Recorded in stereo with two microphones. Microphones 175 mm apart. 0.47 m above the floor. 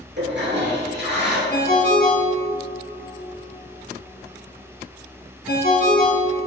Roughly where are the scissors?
No scissors in this recording.